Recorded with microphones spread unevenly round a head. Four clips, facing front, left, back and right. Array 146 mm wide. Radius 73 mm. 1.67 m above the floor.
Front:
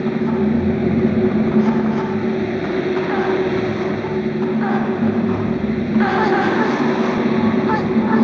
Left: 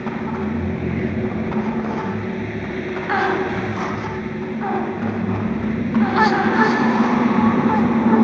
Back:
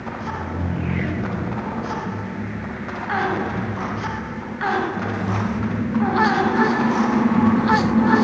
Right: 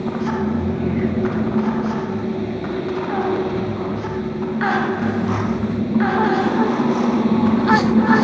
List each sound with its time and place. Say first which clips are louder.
0.0 s a fan: right 3 dB, front 11 dB; 15° right